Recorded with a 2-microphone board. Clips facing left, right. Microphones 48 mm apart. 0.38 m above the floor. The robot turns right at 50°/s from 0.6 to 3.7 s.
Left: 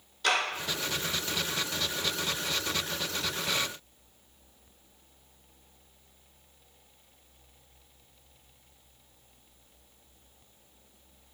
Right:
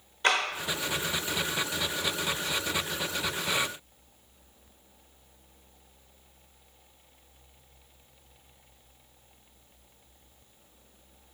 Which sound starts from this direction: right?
A clap, at 0.2 s.